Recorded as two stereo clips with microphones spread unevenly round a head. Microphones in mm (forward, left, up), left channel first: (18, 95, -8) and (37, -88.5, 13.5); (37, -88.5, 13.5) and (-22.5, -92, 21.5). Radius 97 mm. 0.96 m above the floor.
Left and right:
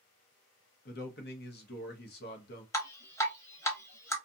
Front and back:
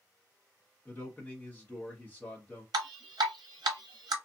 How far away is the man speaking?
About 0.9 m.